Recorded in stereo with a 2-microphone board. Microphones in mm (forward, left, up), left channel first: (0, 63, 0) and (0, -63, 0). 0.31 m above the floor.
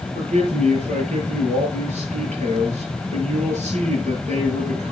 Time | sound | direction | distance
0.1 | a man speaking | 70° right (ahead or behind) | 6.5 m